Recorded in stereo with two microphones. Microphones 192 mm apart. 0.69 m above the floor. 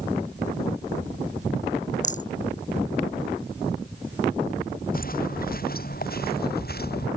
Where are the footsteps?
50° left (ahead or behind); by 7.1 s 55° left (ahead or behind).